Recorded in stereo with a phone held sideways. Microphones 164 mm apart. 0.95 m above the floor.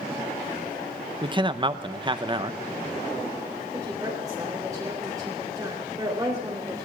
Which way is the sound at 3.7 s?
20° right (ahead or behind).